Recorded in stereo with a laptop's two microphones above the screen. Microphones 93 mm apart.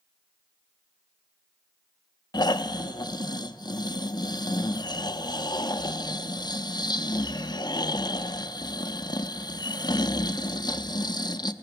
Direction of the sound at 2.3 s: 50° left (ahead or behind).